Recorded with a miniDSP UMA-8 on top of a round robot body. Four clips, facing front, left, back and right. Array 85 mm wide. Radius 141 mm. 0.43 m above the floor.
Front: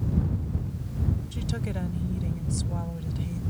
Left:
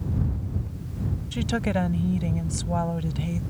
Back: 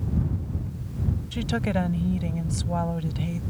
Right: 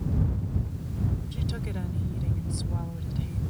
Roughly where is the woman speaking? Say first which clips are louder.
Left 9 dB, back 7 dB; behind left.